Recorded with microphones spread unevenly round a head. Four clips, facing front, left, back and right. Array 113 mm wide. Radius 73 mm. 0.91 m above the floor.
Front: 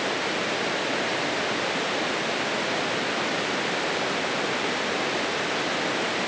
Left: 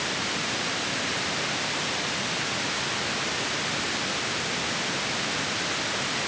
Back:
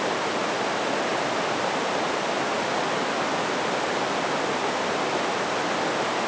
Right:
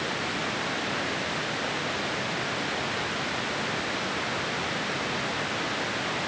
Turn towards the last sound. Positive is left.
No sound to turn to.